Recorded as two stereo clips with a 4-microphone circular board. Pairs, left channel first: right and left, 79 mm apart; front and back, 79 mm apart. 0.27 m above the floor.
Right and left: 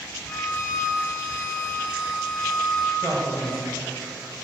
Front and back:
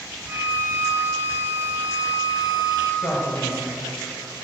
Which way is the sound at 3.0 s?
10° right.